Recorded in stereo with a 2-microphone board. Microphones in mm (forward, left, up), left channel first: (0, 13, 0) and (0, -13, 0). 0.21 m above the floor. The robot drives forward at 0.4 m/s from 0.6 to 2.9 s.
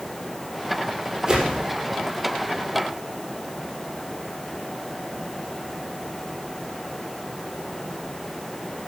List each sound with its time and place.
1.3 s a whoosh: 30° right (ahead or behind), 4 m